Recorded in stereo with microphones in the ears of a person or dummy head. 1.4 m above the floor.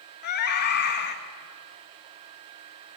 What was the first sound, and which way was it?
A scream, 50° left (ahead or behind).